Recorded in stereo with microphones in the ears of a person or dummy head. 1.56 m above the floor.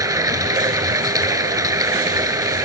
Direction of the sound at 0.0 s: 20° right (ahead or behind).